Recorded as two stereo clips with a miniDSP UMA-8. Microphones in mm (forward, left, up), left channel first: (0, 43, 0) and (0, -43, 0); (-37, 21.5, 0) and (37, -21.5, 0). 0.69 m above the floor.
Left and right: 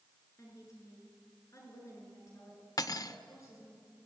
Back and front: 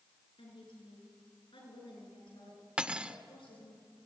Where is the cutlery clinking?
45° left, 0.8 m.